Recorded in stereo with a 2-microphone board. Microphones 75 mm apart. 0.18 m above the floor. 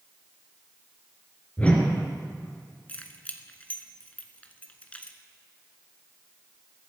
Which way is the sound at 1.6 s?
20° left (ahead or behind).